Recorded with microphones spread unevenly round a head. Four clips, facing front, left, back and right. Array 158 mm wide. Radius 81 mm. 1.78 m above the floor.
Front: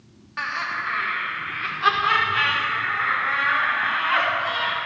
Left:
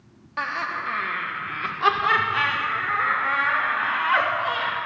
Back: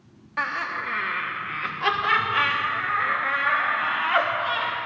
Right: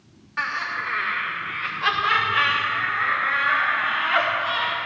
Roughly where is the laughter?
Behind left.